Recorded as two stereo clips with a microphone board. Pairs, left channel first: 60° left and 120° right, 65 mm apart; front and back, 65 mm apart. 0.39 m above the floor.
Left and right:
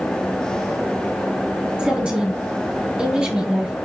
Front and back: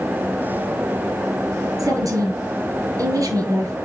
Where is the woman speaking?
160° left, 4 m.